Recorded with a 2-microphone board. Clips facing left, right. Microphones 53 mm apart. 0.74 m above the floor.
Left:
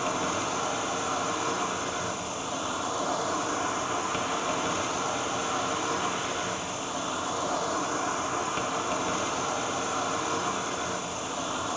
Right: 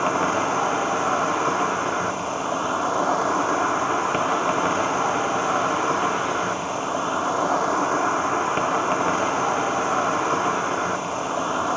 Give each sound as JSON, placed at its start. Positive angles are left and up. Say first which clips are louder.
{"t": 0.0, "sound": "an insect", "louder": "right 8 dB", "side_deg": -45, "distance_m": 0.7}